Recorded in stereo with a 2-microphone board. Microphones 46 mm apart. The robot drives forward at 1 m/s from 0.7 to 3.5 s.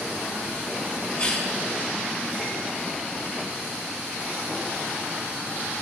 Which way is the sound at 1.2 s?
20° left (ahead or behind).